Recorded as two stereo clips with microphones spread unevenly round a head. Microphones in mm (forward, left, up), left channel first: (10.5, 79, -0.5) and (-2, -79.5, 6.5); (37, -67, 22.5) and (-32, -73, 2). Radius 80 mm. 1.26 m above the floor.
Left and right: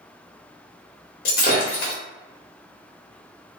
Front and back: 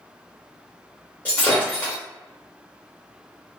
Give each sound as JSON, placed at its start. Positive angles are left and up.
{"t": 1.2, "sound": "breaking glass", "azimuth_deg": 65, "distance_m": 1.1}